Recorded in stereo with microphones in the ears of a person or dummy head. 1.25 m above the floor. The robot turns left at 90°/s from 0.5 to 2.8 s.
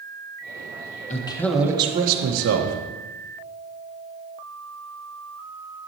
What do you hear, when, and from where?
1.1 s a man speaking: 35° left, 1.3 m; by 2.8 s 115° right, 1.3 m